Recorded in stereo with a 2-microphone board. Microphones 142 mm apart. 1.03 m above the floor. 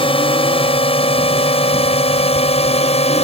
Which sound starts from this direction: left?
A drone, at 0.0 s.